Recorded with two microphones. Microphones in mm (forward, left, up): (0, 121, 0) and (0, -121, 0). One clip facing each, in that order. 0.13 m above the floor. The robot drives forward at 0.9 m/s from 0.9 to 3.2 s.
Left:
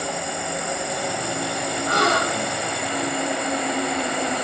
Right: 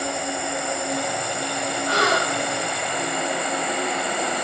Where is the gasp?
50° left (ahead or behind), 5 m; by 2.6 s 60° left (ahead or behind), 5 m.